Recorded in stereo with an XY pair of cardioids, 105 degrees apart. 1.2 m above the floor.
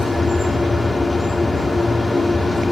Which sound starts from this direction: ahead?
A machine running, at 0.0 s.